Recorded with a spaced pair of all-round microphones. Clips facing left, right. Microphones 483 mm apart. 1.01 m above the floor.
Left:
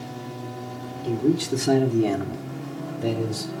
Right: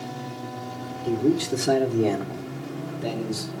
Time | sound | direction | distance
1.0 | a man speaking | 5° right (ahead or behind) | 3 m